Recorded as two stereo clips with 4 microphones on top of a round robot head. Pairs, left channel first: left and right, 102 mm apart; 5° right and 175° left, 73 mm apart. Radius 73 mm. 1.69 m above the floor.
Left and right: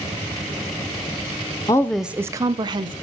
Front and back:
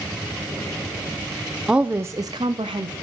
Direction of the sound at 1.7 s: 105° left.